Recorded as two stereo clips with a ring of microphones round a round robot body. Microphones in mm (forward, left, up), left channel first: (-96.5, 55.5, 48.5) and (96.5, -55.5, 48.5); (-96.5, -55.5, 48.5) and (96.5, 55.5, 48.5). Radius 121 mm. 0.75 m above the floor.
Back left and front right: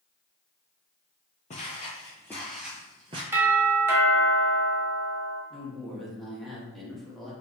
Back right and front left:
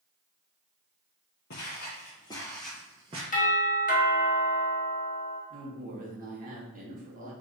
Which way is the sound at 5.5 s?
60° left.